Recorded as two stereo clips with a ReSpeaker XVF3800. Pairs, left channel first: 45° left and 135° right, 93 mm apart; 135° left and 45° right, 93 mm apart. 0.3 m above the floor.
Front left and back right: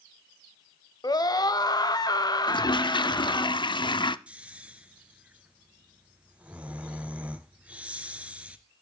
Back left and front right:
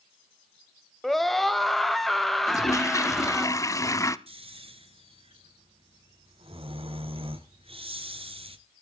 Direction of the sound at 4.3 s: 60° right.